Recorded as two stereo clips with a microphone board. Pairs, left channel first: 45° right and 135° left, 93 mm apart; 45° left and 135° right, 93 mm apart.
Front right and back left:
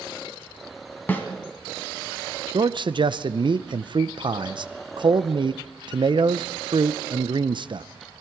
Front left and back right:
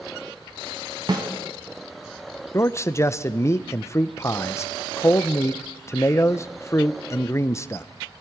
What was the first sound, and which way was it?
A snare drum, 110° right.